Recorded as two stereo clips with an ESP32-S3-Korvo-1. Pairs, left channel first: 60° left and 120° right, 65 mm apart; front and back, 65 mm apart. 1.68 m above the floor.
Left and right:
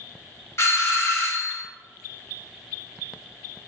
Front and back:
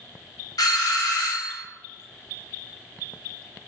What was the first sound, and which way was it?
A doorbell, 15° left.